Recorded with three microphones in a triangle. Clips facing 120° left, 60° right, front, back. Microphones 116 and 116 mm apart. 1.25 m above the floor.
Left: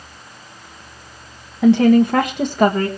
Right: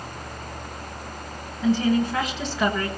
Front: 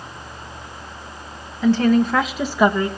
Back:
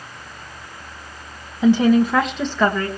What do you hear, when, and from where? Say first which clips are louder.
1.6 s a woman speaking: left 9 dB, back 2 dB; 110° left, 1.4 m; by 2.9 s 70° left, 1.7 m